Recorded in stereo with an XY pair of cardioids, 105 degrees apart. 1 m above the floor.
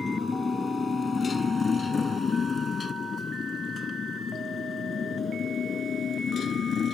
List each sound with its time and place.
0.0 s a motorcycle: 25° left; by 7.0 s 50° left